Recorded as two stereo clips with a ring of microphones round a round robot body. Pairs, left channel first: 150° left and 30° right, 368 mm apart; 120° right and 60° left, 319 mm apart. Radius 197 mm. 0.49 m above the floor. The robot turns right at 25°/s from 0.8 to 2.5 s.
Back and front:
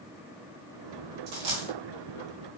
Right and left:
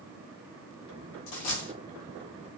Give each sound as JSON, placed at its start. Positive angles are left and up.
{"t": 1.3, "sound": "a dropped coin", "azimuth_deg": -95, "distance_m": 0.9}